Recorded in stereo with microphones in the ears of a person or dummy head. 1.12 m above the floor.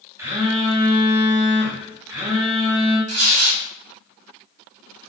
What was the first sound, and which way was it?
A phone buzzing, 15° right (ahead or behind).